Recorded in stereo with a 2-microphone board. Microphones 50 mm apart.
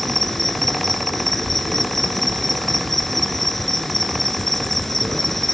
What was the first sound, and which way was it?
An insect, 5° left (ahead or behind).